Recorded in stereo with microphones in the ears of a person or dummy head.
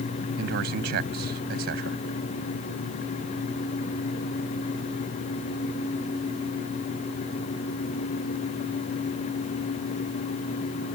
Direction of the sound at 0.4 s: 60° right (ahead or behind).